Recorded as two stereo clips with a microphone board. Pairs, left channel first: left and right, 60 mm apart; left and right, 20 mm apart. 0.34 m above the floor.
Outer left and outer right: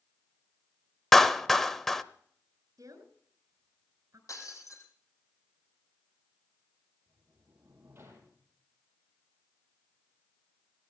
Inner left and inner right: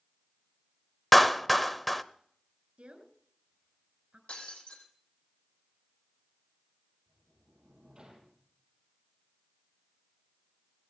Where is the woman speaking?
70° right (ahead or behind), 4 m.